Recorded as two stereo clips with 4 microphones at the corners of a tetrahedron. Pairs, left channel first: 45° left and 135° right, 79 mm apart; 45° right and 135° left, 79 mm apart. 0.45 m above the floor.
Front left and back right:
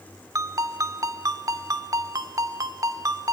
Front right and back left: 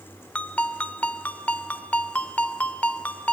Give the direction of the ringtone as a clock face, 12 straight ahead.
4 o'clock.